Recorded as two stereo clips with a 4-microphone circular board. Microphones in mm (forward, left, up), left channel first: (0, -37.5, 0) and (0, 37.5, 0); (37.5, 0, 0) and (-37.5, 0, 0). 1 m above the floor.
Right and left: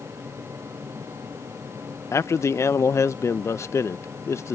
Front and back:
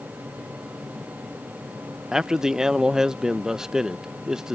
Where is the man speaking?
100° right.